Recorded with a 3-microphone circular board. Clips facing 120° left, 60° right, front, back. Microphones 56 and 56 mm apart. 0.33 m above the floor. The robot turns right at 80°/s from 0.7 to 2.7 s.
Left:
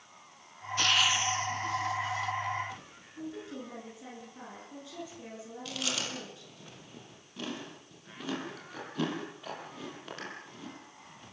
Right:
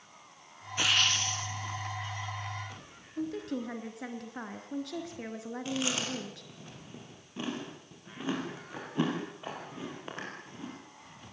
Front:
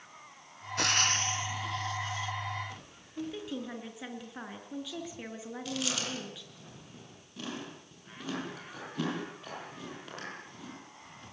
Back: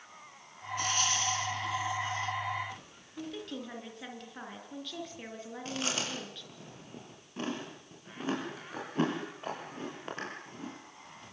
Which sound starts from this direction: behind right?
Chewing, at 5.7 s.